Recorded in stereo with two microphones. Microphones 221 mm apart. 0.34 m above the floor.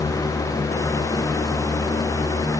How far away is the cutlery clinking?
No cutlery clinking in this recording.